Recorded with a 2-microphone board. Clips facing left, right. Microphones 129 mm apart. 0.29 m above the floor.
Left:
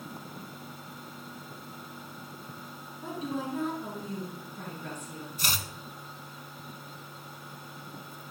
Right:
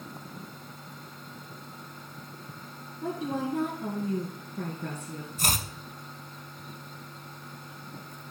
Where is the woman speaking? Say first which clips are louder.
Right 3 dB; 70° right (ahead or behind), 3 m.